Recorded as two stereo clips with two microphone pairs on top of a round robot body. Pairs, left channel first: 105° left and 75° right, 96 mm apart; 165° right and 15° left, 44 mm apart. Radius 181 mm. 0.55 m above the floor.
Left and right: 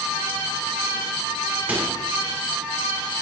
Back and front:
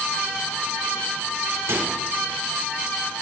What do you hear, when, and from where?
1.7 s a microwave: straight ahead, 3 m